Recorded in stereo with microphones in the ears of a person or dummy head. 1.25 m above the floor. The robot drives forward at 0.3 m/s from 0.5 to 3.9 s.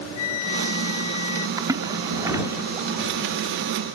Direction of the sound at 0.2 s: 80° left.